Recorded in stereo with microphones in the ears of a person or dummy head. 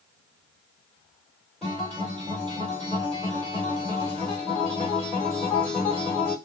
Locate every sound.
1.6 s a guitar: centre (ahead or behind), 2.5 m